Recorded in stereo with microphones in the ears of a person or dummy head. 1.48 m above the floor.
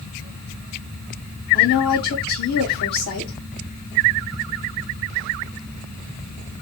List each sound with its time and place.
1.5 s a woman speaking: 55° left (ahead or behind), 2.5 m